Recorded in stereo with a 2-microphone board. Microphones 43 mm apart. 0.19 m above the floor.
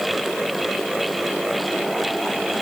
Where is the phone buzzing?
I don't hear a phone buzzing.